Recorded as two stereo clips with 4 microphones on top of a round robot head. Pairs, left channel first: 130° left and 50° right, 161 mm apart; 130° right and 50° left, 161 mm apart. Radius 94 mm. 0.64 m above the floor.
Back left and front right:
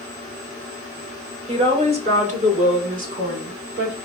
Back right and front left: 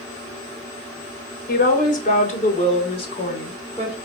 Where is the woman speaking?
100° right, 3 m; by 4.0 s 65° right, 3 m.